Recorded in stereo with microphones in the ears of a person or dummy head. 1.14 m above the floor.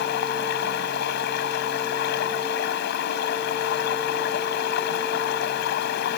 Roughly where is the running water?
Left.